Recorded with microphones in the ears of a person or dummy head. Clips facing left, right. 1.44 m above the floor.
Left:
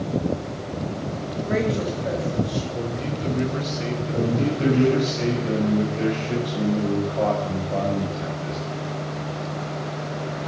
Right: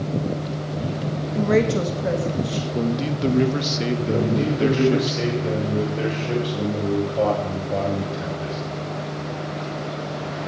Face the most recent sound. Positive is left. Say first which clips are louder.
# left 1 dB
turn(degrees=-55)  # may be behind; listen again after turning